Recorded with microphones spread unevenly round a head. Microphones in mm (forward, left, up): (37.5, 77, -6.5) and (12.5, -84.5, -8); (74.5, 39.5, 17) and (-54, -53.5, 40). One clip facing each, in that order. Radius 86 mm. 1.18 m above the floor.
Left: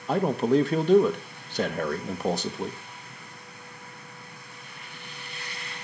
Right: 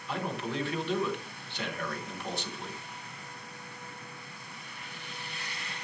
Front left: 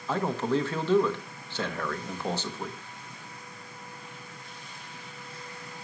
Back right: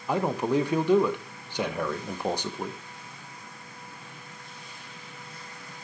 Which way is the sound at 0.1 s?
140° left.